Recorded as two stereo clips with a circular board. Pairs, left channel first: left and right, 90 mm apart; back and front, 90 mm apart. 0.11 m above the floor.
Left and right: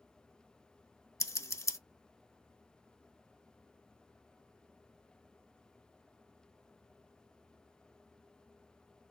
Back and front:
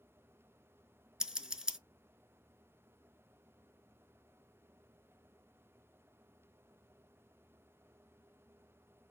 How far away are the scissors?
About 0.5 m.